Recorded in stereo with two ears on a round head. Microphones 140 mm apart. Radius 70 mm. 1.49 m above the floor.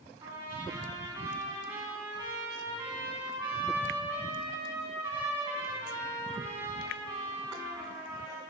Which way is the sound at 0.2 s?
30° right (ahead or behind).